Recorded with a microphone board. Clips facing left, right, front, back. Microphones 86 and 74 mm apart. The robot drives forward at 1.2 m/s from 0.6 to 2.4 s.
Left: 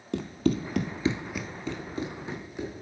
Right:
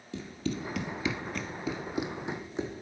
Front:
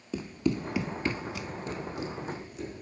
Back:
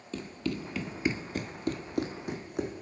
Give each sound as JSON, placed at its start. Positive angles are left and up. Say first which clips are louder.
{"t": 0.1, "sound": "running footsteps", "louder": "left 8 dB, front 5 dB", "azimuth_deg": 75, "distance_m": 0.9}